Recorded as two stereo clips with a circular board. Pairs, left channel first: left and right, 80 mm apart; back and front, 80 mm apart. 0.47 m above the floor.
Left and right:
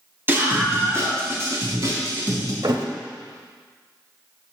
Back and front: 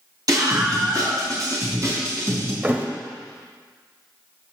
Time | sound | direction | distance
0.3 | a scream | 30° right | 2.5 m
2.6 | a thud | 65° right | 0.8 m